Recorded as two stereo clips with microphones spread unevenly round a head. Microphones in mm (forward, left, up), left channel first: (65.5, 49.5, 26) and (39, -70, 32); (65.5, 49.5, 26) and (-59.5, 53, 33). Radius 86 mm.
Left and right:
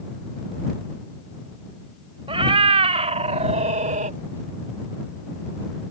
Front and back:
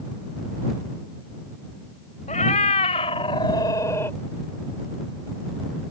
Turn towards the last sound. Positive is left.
turn(degrees=-80)